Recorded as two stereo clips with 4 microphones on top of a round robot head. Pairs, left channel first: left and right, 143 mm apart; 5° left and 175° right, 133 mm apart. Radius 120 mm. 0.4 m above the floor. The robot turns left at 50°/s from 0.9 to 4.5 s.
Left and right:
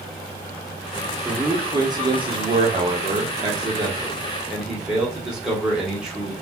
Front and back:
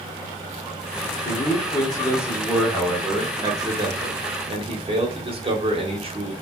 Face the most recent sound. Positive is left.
turn(degrees=-170)